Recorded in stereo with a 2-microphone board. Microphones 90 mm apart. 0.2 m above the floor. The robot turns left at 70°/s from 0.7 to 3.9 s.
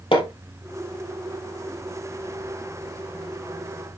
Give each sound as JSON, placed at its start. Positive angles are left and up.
{"t": 0.1, "sound": "hammering", "side_deg": 80, "distance_m": 3.0}